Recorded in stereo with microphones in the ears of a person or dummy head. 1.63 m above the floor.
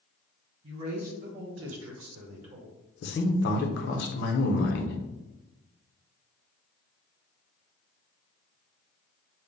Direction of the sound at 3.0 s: 55° left (ahead or behind).